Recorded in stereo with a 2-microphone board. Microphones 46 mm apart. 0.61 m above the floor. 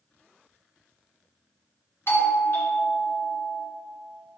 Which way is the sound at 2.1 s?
50° left (ahead or behind).